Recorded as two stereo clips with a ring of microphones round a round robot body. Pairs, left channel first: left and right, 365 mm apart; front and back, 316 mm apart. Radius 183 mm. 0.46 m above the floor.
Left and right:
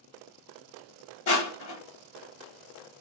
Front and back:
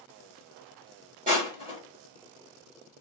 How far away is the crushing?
About 1.8 m.